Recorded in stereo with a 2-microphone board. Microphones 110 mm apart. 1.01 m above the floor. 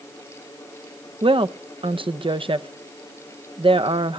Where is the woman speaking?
50° right (ahead or behind), 0.6 m.